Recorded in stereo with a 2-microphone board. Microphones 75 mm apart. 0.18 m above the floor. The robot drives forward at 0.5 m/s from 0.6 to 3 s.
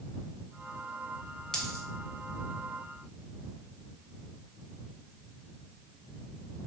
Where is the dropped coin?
10° left (ahead or behind), 0.8 m.